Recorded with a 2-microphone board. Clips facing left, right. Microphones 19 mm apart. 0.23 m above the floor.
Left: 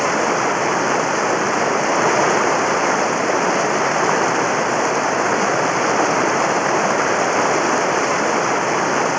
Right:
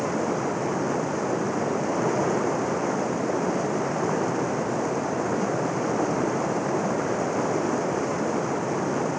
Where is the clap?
No clap in this recording.